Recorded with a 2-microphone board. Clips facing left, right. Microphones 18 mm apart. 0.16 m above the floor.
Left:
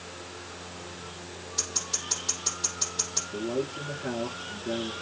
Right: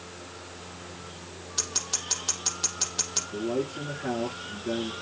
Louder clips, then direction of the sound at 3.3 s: Right 2 dB; 15° right (ahead or behind).